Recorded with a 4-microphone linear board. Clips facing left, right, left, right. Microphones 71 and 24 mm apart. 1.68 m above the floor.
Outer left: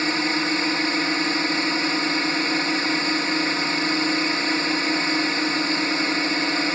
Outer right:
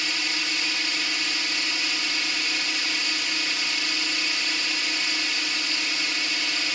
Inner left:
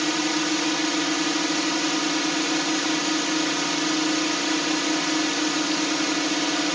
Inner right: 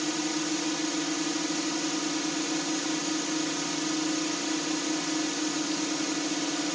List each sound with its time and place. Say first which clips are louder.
0.0 s a drone: outer left 8 dB, inner left 6 dB; 35° left (ahead or behind)